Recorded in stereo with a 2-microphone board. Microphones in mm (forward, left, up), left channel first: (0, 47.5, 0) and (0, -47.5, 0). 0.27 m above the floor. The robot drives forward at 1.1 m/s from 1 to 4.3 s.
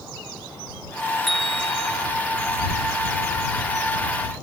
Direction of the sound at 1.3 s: Centre (ahead or behind).